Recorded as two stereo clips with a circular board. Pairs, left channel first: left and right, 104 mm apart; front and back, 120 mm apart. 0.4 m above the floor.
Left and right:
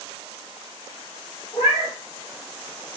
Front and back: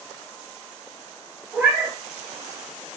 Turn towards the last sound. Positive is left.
turn(degrees=105)